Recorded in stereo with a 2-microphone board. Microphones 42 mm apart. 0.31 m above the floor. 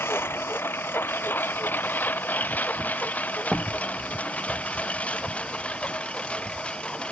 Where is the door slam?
5° left (ahead or behind).